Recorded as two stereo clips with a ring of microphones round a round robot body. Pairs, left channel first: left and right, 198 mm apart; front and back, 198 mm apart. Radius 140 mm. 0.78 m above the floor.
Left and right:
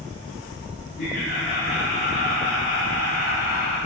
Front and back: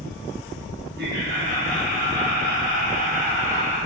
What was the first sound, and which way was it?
Laughter, 150° left.